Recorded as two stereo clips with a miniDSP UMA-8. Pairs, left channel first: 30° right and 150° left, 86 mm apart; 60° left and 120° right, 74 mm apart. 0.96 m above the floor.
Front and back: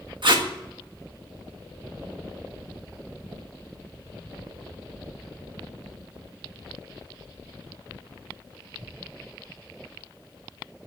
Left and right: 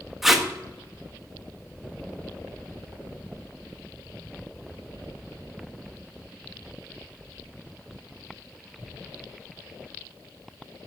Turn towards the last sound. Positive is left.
turn(degrees=155)